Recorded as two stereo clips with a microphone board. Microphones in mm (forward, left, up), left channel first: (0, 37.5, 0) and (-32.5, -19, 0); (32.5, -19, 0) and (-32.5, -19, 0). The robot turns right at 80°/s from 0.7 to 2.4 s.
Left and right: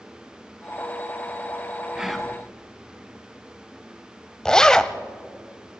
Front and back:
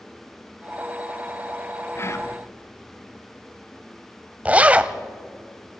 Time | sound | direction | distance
1.9 | whispering | 45° right | 1.8 m
4.5 | a zipper | 130° left | 0.7 m